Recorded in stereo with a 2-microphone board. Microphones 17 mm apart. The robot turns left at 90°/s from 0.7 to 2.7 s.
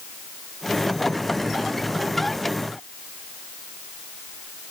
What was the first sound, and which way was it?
Only background noise.